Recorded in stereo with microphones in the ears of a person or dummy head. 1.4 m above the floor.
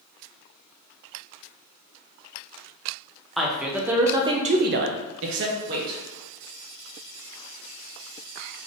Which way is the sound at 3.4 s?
Centre (ahead or behind).